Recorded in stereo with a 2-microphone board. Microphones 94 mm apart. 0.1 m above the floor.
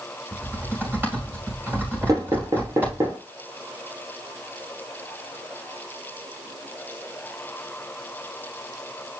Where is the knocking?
40° right (ahead or behind), 2.5 m.